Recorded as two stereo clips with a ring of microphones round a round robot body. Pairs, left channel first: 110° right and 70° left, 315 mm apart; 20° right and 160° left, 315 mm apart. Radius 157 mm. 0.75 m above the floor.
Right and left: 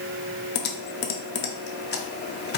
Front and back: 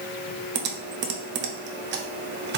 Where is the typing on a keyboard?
160° right, 0.6 m.